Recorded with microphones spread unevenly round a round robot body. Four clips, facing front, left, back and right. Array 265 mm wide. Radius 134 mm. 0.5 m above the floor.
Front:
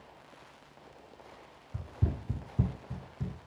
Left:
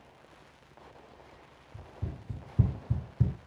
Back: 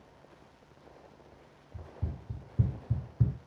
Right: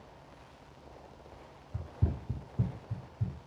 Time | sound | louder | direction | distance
1.7 | running footsteps | right 6 dB, front 7 dB | 40° right | 1.1 m